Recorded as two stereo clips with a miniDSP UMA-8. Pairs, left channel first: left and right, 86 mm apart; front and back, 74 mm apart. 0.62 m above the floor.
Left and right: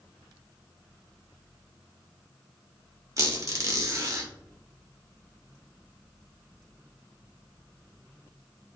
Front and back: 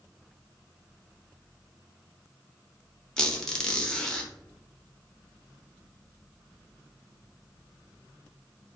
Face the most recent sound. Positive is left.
turn(degrees=-75)